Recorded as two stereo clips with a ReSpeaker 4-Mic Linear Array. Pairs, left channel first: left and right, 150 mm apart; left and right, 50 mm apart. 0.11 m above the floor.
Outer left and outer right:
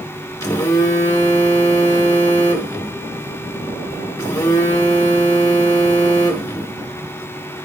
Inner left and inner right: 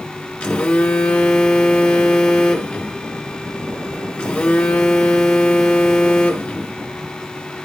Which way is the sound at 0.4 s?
20° left (ahead or behind).